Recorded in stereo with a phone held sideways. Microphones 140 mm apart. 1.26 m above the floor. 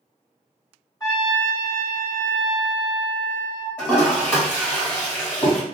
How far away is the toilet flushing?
About 1.7 m.